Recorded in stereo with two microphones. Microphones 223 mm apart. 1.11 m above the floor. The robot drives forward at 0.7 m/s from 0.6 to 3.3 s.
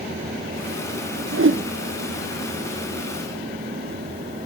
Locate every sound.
1.3 s a whoosh: 75° right (ahead or behind), 0.6 m; by 1.6 s 55° right (ahead or behind), 0.7 m